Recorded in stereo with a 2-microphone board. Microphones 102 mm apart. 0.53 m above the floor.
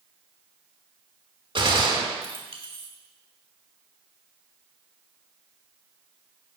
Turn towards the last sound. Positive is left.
turn(degrees=-50)  # may be behind; listen again after turning